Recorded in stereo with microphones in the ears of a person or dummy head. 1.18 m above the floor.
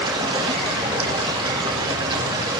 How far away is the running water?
About 1.8 m.